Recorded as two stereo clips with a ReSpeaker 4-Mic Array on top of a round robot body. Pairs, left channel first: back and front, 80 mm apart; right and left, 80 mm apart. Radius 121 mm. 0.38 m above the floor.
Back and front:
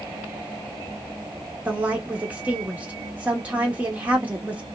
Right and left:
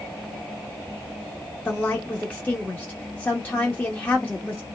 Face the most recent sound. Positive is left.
turn(degrees=-45)